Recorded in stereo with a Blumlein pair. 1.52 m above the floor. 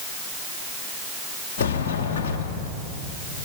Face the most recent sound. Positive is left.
turn(degrees=55)